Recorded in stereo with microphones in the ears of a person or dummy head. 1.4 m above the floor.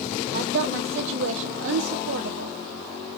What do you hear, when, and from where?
0.3 s a woman speaking: 65° right (ahead or behind), 1.4 m; by 2.6 s 85° right, 2.5 m